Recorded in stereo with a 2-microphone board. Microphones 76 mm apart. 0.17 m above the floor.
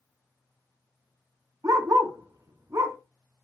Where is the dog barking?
45° right (ahead or behind), 0.7 m.